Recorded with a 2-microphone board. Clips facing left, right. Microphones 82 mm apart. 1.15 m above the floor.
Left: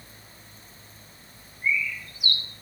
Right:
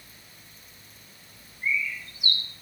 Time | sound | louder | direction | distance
1.6 | a bird | left 2 dB | 30° right (ahead or behind) | 1.4 m